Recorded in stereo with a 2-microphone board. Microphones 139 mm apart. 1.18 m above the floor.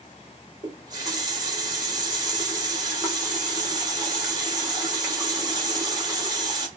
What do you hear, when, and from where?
0.6 s a running tap: 30° right (ahead or behind), 1.0 m